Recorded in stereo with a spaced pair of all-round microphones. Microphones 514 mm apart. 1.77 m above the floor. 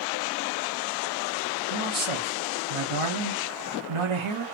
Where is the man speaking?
65° right (ahead or behind), 0.9 m.